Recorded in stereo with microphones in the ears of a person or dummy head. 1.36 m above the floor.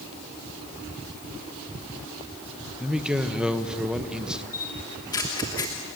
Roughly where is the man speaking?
Centre.